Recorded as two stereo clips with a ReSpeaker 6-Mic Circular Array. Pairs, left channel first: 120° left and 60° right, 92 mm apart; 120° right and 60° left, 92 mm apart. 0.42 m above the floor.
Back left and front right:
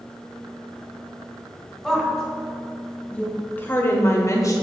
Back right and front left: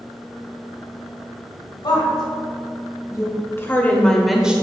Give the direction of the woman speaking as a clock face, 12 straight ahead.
5 o'clock.